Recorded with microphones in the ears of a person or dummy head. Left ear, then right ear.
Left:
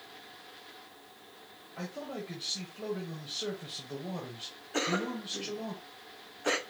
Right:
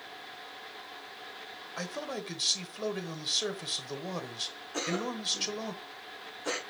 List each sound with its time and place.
1.8 s a man speaking: 65° right (ahead or behind), 1.0 m
4.7 s a cough: 15° left (ahead or behind), 0.6 m